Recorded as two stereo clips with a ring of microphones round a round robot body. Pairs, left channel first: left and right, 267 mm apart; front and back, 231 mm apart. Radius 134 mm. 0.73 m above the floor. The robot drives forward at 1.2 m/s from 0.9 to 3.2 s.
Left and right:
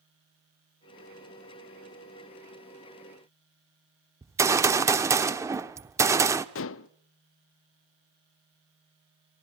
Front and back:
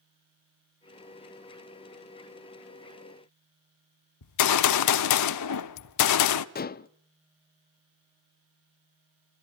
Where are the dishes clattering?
50° left, 0.7 m.